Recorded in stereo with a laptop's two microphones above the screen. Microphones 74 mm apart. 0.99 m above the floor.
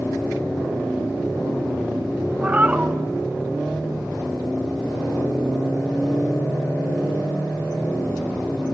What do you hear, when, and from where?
2.4 s a cat meowing: 20° right (ahead or behind), 0.9 m